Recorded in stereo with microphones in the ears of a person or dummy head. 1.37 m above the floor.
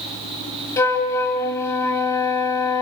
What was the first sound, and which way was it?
A flute, 20° left (ahead or behind).